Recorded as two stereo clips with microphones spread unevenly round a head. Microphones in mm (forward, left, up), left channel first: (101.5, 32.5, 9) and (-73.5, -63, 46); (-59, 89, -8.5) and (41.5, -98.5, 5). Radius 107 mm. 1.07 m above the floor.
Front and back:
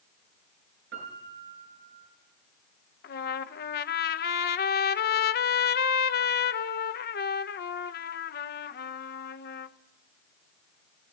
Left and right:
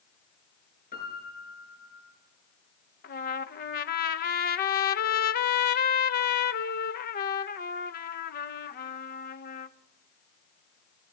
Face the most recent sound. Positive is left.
turn(degrees=70)